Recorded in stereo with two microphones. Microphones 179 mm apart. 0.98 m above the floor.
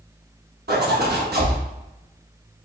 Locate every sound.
0.7 s a zipper: 65° right (ahead or behind), 1.1 m